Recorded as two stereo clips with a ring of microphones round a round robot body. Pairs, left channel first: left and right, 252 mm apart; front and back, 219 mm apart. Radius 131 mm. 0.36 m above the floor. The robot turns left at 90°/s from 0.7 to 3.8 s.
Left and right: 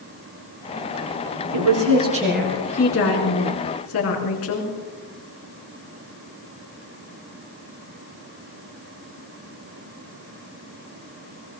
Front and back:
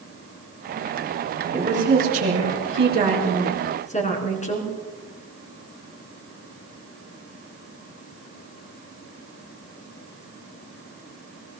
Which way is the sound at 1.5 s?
100° right.